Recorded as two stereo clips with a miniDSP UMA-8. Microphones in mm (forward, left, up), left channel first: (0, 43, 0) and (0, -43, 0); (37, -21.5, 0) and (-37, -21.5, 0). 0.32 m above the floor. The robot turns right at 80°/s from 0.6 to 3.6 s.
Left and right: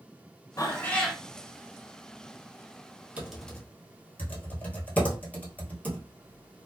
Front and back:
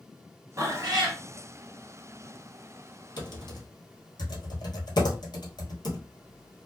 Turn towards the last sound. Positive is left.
turn(degrees=15)